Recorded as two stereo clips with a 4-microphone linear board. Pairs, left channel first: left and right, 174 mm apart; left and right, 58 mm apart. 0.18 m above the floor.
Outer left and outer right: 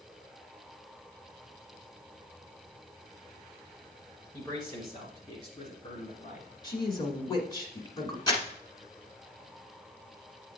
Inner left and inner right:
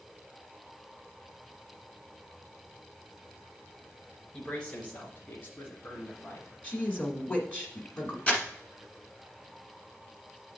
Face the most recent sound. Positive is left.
turn(degrees=25)  # may be behind; listen again after turning